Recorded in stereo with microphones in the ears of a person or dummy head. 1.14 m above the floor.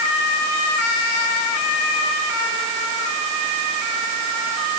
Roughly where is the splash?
No splash in this recording.